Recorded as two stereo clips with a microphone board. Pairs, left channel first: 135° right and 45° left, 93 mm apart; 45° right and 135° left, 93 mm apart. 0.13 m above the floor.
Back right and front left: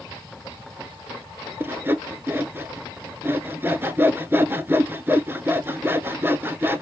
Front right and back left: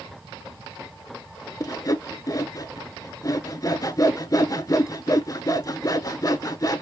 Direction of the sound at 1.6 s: 15° right.